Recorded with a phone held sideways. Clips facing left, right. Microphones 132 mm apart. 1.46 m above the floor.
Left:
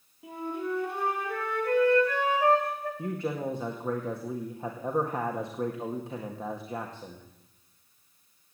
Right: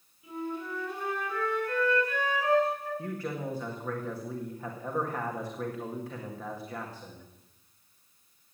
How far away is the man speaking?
About 1.9 m.